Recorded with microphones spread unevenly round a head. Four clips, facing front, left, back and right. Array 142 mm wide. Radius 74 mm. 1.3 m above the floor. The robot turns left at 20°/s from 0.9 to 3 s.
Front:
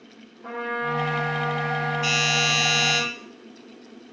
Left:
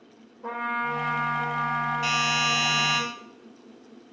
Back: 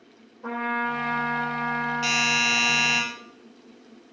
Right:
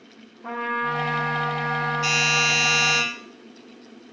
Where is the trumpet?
140° left, 4.5 m; by 3.0 s 95° left, 4.5 m.